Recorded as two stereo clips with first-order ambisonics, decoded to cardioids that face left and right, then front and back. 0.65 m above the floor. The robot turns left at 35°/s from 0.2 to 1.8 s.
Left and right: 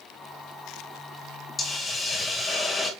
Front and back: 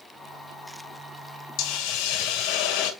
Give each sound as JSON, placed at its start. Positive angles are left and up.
{"t": 1.6, "sound": "a hiss", "azimuth_deg": 20, "distance_m": 2.5}